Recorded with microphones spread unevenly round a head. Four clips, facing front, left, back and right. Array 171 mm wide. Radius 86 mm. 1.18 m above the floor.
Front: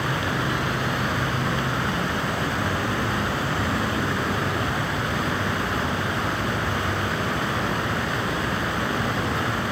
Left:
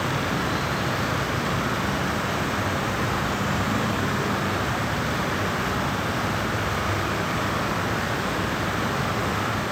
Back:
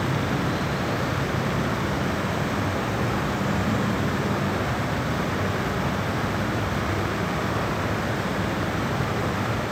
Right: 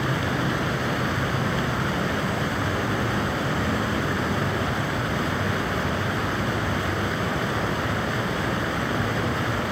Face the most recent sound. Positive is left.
No sound to turn to.